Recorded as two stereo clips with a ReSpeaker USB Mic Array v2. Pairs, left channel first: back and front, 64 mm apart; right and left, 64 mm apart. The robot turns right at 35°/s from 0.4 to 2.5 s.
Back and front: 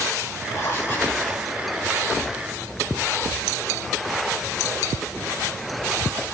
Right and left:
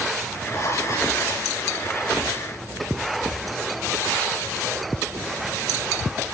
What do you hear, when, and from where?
0.5 s writing: 135° right, 6.5 m; by 1.5 s 100° right, 6.5 m